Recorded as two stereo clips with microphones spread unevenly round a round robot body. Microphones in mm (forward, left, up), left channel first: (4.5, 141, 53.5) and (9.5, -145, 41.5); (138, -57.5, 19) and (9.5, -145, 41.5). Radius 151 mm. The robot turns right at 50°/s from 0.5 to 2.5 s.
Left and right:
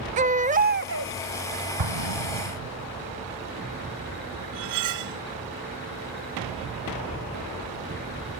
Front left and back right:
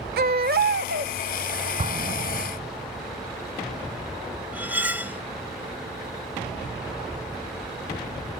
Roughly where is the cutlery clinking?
Ahead right.